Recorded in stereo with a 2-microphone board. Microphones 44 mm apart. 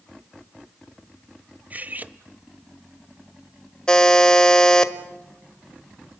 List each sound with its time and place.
1.7 s cutlery clinking: 40° right (ahead or behind), 0.8 m
3.9 s a buzzer: 15° left (ahead or behind), 1.3 m